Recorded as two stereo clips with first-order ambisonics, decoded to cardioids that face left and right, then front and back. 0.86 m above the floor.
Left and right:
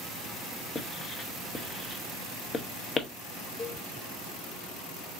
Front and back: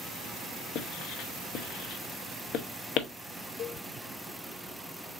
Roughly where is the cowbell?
Ahead left.